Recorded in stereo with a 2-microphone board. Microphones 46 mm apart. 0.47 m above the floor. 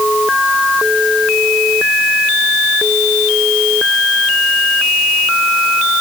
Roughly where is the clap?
No clap in this recording.